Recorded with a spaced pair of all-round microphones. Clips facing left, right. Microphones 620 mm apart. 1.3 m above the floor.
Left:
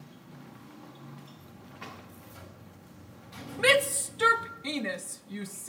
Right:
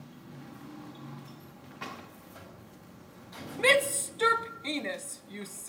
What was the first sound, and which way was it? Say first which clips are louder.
A buzzer: right 2 dB; 50° left (ahead or behind).